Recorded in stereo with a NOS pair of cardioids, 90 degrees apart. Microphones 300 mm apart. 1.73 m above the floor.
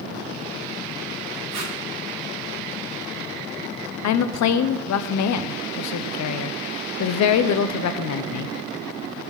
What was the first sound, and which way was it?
Tape being pulled, 60° right.